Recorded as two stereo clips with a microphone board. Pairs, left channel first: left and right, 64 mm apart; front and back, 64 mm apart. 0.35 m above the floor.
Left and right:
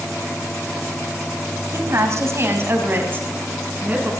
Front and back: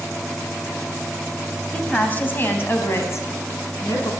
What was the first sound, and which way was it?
A woman speaking, 75° right.